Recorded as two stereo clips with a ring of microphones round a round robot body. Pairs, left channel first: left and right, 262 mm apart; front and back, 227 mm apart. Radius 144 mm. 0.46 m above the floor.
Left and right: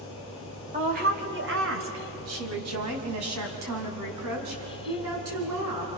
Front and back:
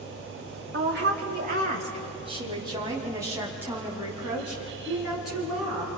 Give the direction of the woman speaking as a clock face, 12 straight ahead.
5 o'clock.